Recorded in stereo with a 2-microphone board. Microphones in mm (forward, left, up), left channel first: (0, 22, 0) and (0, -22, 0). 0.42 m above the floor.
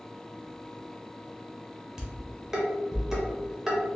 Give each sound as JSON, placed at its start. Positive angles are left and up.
{"t": 2.0, "sound": "dishes clattering", "side_deg": -10, "distance_m": 0.8}